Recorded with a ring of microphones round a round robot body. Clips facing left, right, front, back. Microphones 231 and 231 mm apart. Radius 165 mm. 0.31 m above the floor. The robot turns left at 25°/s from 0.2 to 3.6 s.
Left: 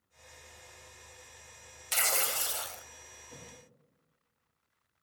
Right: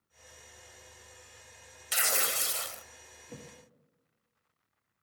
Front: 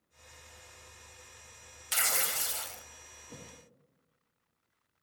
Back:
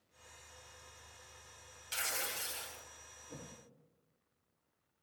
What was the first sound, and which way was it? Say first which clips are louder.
Tearing paper: right 1 dB, front 5 dB; 10° right.